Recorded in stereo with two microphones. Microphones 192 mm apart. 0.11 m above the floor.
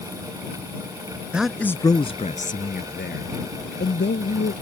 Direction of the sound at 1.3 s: 5° right (ahead or behind).